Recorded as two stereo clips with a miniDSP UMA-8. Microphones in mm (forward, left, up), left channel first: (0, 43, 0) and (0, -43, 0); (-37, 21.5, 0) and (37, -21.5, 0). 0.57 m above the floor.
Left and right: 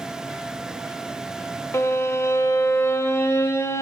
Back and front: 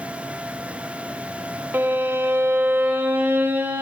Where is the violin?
35° left, 0.6 m.